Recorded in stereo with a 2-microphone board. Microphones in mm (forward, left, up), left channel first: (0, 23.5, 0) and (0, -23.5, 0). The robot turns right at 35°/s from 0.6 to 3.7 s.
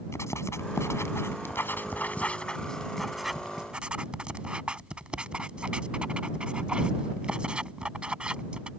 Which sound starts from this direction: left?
Writing, at 0.1 s.